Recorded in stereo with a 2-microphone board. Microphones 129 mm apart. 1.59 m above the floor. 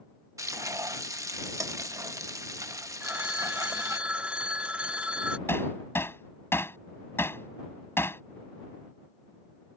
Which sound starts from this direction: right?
Frying, at 0.4 s.